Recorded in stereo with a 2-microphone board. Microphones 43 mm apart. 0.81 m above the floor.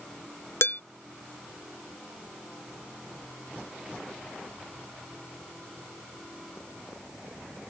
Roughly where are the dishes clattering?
Left.